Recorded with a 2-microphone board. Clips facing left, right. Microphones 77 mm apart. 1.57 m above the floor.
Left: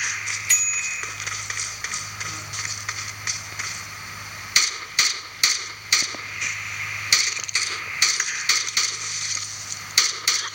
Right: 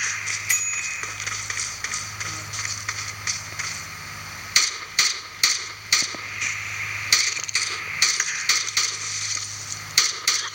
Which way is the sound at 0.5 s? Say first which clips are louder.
Even; 15° right (ahead or behind).